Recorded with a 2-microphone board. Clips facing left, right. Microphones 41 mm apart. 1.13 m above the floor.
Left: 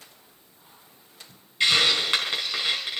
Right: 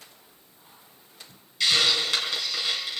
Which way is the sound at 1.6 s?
30° left (ahead or behind).